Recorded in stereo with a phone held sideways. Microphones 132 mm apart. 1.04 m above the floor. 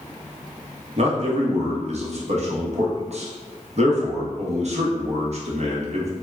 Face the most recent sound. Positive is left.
turn(degrees=-55)  # may be behind; listen again after turning